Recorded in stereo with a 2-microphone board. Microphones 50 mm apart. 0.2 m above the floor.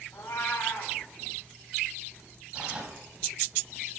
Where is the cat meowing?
80° left, 5 m.